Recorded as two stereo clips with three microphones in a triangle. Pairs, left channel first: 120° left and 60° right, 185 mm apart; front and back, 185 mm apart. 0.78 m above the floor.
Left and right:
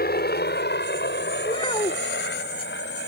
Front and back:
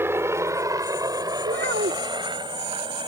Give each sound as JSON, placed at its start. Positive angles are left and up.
{"t": 0.0, "sound": "a helicopter", "azimuth_deg": 105}
{"t": 1.4, "sound": "a child speaking", "azimuth_deg": 175}